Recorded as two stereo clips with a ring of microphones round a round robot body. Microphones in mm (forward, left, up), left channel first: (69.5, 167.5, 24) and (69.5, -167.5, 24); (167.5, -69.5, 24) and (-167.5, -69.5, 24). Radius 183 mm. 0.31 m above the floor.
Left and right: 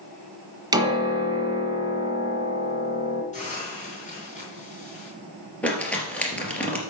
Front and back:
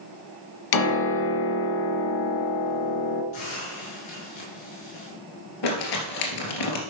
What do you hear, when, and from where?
0.7 s a piano: 10° right, 1.8 m
3.3 s a hiss: 20° left, 5 m
5.6 s crumpling: 5° left, 3 m